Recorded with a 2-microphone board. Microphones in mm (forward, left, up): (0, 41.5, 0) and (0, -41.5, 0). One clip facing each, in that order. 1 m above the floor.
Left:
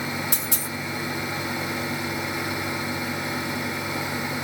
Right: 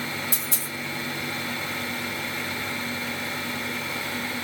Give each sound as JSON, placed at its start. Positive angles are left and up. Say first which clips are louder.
{"t": 0.3, "sound": "a dropped coin", "louder": "left 3 dB", "side_deg": 65, "distance_m": 2.5}